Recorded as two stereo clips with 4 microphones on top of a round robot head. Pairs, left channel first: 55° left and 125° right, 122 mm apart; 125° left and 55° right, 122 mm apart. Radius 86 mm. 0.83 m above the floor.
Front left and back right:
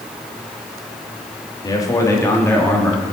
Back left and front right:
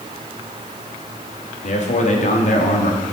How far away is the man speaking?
About 1.9 m.